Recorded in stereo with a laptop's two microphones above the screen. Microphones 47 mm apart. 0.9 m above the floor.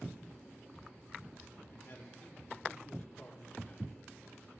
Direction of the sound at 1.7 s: 55° left (ahead or behind).